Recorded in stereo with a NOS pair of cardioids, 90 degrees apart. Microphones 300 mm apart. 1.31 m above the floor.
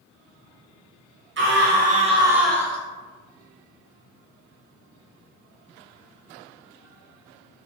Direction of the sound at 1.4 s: 45° right.